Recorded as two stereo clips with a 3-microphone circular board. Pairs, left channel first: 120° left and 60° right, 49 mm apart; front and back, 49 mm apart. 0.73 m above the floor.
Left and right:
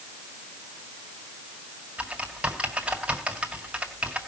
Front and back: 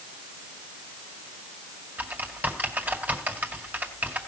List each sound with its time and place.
2.0 s typing on a keyboard: 125° right, 2.0 m